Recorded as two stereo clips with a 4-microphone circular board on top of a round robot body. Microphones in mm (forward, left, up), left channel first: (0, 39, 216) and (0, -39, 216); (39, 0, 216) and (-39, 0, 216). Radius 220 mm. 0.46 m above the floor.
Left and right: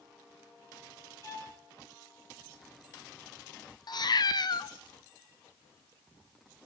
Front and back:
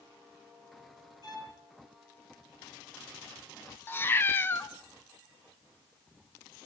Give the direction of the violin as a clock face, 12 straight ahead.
11 o'clock.